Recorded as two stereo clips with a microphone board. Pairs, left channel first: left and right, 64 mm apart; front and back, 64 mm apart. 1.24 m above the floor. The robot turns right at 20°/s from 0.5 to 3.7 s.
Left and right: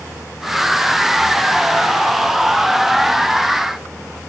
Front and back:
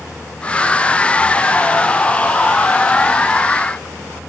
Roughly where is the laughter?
I don't hear laughter.